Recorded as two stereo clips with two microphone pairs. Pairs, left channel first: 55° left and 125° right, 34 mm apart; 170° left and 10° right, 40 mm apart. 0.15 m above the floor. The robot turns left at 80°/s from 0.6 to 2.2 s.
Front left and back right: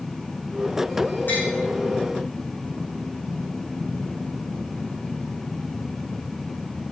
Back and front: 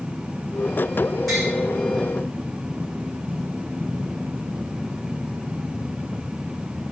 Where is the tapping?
80° left, 4 m; by 1.5 s 65° left, 4 m.